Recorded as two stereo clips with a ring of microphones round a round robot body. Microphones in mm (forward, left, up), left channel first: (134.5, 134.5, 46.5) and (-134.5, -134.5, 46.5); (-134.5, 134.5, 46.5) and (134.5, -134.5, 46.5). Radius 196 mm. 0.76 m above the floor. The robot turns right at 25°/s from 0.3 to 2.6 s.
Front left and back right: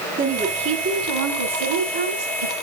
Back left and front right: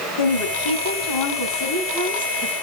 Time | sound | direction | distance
0.2 | a woman speaking | 155° left | 4.5 m